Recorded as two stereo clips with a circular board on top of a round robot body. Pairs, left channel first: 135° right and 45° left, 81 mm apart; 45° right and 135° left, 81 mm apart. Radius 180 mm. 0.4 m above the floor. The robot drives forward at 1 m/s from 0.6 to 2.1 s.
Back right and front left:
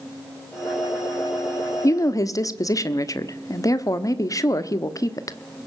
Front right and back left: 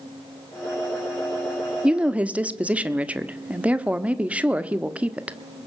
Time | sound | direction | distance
1.8 | a woman speaking | 150° right | 1.5 m